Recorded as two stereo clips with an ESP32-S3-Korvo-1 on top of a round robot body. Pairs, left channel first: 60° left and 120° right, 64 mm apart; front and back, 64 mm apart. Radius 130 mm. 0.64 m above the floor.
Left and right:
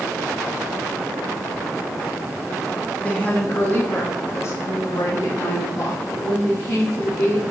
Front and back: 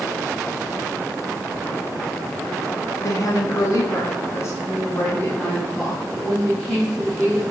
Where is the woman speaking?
10° right, 1.4 m; by 7.4 s 90° left, 1.9 m.